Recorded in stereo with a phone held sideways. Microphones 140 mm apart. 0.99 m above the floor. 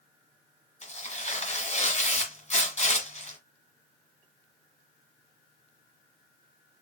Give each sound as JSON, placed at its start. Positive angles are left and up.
{"t": 0.8, "sound": "tearing paper", "side_deg": 55, "distance_m": 1.7}